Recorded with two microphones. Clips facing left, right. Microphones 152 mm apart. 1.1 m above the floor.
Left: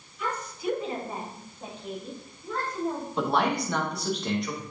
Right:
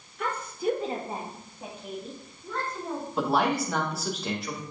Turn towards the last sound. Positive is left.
turn(degrees=-5)  # may be behind; listen again after turning